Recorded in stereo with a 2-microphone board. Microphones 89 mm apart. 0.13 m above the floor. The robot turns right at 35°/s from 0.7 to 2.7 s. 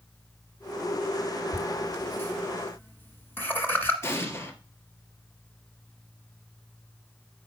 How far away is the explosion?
About 1.9 m.